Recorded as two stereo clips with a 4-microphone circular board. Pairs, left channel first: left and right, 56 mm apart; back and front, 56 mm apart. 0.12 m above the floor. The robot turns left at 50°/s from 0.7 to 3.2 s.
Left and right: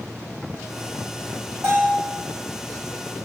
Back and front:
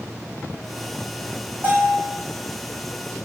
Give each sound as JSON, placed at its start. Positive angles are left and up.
{"t": 1.6, "sound": "a bell", "azimuth_deg": -55, "distance_m": 2.5}